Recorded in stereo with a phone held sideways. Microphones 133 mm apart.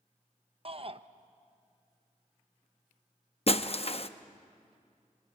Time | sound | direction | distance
0.7 | a shout | 45° right (ahead or behind) | 0.8 m
3.5 | breaking glass | 50° left (ahead or behind) | 0.7 m